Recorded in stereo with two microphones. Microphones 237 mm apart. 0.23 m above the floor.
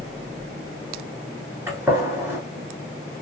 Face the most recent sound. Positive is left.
turn(degrees=-10)  # may be behind; listen again after turning